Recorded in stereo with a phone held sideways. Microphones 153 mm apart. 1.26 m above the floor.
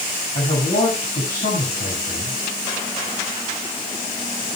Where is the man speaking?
65° left (ahead or behind), 8 m.